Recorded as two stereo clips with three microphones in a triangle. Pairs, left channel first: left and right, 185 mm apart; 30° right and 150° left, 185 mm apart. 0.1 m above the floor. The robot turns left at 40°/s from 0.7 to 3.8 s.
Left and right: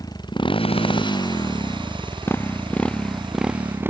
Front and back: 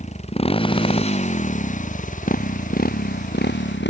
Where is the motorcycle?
20° left; by 3.9 s 10° right.